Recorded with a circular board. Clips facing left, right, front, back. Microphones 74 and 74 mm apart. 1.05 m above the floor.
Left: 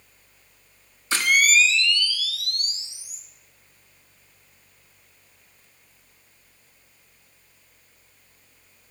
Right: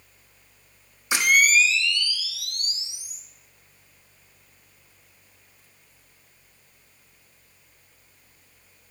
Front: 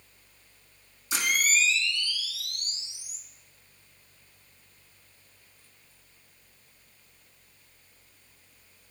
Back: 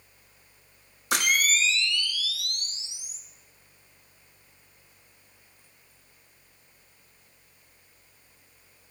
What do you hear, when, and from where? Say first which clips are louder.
1.1 s a camera shutter: even, back 2 dB; 165° right, 0.8 m